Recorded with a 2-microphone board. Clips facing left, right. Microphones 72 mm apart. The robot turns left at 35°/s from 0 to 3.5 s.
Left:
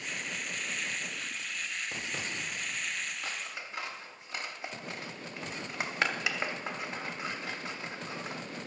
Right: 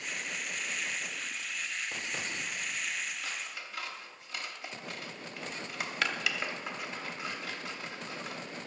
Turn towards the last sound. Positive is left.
turn(degrees=25)  # may be behind; listen again after turning